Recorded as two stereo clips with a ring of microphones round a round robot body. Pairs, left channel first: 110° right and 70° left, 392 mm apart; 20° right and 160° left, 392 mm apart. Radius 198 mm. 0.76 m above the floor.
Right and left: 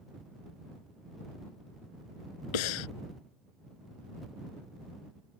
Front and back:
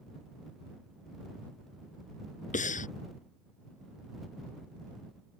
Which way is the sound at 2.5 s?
95° right.